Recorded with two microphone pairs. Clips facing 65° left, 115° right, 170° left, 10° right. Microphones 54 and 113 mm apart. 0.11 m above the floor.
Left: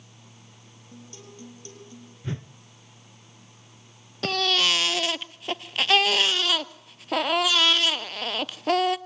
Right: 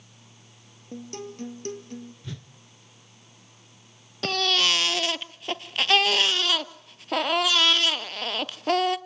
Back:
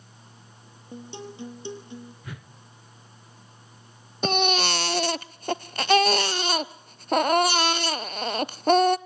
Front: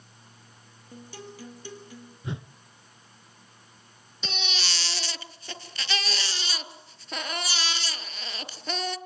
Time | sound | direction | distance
0.9 | a guitar | 125° right | 2.5 m
2.2 | a whoosh | 40° left | 0.7 m
4.2 | a baby crying | 150° left | 0.6 m